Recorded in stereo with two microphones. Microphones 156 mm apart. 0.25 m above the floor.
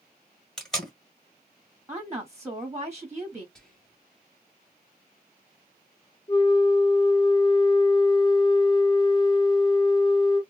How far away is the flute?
About 0.8 m.